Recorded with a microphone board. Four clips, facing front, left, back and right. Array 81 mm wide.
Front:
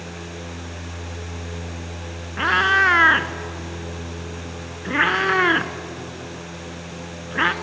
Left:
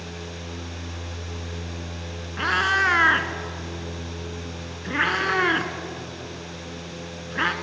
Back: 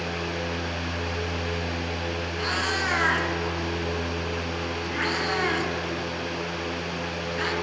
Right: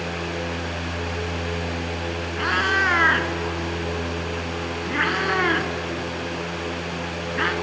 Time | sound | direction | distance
2.4 | a cat meowing | straight ahead | 0.5 m